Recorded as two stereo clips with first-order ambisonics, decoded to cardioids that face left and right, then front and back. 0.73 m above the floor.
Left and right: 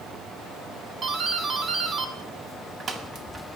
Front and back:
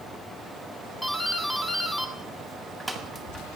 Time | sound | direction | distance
1.0 | a doorbell | 95° right | 1.0 m